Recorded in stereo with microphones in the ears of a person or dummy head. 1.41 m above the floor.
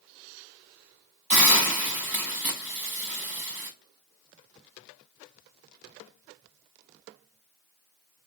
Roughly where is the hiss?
Centre.